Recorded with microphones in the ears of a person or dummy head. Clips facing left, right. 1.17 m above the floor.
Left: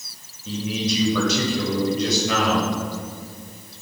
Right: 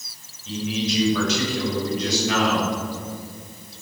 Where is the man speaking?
85° left, 6 m; by 2.7 s 80° left, 7 m.